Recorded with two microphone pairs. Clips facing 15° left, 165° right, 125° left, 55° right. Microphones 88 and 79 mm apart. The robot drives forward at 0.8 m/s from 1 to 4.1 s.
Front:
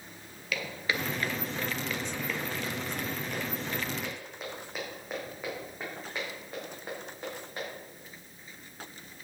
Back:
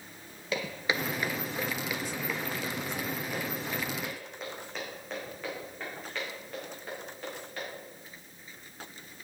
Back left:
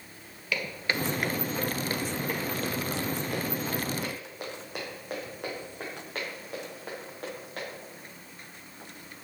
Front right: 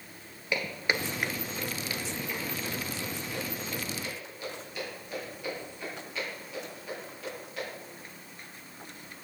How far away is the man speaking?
No man speaking in this recording.